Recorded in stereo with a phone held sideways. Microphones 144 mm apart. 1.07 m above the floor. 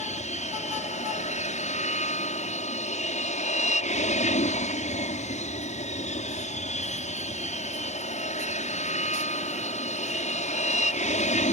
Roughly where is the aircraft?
Left.